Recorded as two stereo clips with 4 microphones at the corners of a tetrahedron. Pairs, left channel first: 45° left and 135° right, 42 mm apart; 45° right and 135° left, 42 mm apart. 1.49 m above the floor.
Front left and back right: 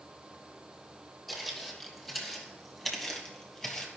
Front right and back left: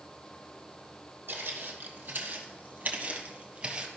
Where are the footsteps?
140° left, 2.5 m; by 3.9 s 120° left, 1.5 m.